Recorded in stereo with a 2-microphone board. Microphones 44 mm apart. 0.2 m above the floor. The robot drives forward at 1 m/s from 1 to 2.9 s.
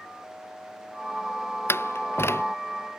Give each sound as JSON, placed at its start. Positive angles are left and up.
{"t": 1.7, "sound": "a door slam", "side_deg": 70}